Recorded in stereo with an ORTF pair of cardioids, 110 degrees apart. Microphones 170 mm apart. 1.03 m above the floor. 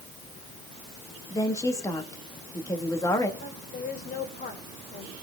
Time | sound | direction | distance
1.3 | a woman speaking | 20° left | 2.0 m
3.4 | a woman speaking | 60° left | 4 m